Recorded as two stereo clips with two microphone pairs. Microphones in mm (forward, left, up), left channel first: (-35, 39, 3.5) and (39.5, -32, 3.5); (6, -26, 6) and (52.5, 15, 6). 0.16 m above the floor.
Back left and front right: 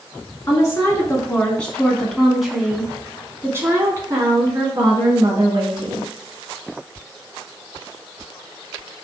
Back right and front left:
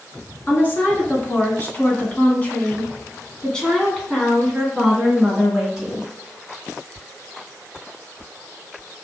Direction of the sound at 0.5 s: Straight behind.